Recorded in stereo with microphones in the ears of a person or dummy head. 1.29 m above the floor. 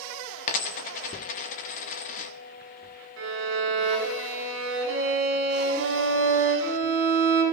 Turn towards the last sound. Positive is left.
turn(degrees=-75)  # may be behind; listen again after turning